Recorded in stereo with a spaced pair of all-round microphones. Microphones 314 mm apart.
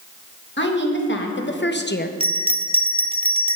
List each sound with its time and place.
0.6 s a woman speaking: 40° left (ahead or behind), 1.8 m; by 2.1 s 30° left (ahead or behind), 0.5 m
2.2 s a bell: 20° right (ahead or behind), 0.5 m